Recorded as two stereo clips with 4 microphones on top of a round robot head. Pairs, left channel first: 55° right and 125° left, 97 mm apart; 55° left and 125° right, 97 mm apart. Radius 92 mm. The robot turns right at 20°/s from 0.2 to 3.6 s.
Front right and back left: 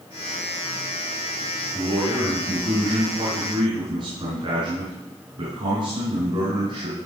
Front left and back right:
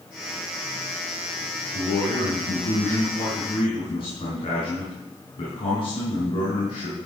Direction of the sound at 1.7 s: 50° left.